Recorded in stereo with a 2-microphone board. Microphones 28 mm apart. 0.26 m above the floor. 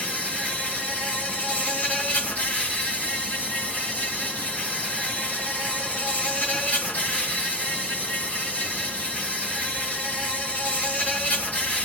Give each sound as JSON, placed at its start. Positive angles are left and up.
{"t": 0.0, "sound": "an insect", "side_deg": 65, "distance_m": 3.0}